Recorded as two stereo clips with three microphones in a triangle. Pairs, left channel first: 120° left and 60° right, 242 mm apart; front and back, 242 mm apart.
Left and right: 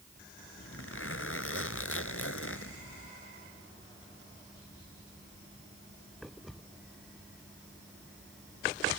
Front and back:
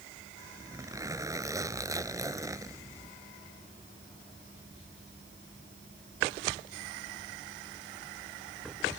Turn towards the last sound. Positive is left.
turn(degrees=105)